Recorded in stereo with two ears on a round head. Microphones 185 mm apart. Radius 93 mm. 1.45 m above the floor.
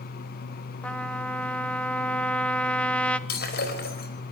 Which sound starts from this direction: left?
Breaking glass, at 3.3 s.